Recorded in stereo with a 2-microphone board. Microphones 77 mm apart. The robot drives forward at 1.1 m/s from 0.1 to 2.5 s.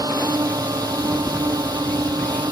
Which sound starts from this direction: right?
A drone, at 0.0 s.